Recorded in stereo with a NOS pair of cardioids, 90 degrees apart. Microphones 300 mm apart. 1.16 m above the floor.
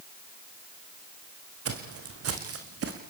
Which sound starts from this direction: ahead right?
Footsteps, at 1.6 s.